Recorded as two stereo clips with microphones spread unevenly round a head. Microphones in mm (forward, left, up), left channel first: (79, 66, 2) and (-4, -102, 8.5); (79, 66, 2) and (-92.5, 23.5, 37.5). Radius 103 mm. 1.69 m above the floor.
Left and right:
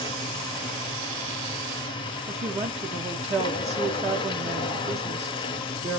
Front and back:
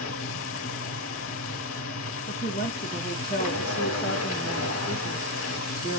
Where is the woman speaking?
60° right, 1.0 m.